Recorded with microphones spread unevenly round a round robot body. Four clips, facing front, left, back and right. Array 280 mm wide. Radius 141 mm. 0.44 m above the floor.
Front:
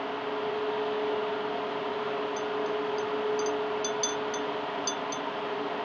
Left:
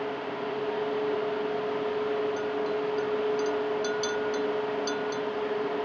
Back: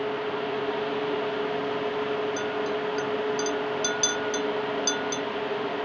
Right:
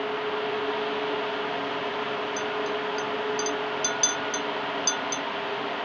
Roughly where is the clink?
Behind.